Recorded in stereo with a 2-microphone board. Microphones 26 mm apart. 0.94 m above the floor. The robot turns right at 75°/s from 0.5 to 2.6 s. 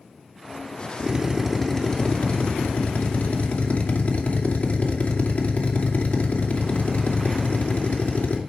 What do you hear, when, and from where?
1.0 s a drill: 40° right, 2.5 m; by 8.4 s 80° left, 2.5 m